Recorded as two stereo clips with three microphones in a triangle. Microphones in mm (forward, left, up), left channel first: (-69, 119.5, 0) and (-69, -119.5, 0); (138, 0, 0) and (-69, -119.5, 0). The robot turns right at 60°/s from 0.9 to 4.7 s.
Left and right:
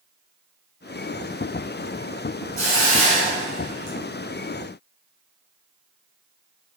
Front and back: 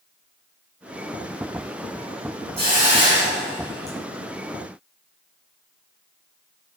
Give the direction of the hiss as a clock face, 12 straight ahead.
4 o'clock.